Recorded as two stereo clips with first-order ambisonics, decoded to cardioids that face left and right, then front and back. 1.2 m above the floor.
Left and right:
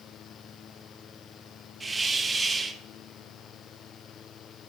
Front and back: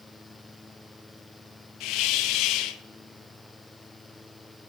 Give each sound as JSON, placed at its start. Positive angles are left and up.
{"t": 1.8, "sound": "a hiss", "azimuth_deg": -10, "distance_m": 0.6}